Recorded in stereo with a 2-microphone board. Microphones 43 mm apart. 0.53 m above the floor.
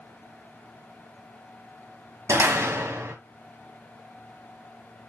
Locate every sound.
2.3 s a door slam: 80° right, 2 m